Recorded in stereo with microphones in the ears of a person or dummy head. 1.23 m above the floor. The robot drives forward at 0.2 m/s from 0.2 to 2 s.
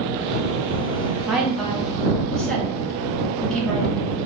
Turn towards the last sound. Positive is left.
turn(degrees=-5)  # may be behind; listen again after turning